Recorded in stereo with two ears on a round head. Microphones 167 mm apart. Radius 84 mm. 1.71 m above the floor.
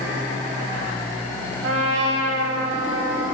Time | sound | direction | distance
1.6 | a trumpet | 85° right | 8.5 m